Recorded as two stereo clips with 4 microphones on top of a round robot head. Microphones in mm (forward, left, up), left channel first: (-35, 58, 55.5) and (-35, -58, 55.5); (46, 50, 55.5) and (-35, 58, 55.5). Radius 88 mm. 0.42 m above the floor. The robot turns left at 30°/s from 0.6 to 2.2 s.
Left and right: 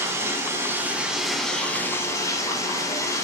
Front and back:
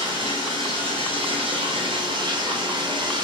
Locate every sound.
0.0 s running water: 160° right, 2 m; by 3.2 s 155° left, 2 m